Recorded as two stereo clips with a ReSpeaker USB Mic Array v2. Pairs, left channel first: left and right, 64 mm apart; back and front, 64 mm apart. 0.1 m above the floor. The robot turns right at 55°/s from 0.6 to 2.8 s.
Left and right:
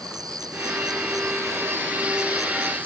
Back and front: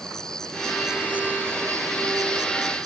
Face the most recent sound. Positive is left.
turn(degrees=20)